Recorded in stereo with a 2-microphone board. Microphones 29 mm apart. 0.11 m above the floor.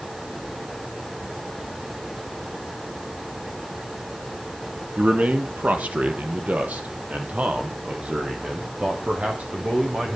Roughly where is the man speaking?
Right.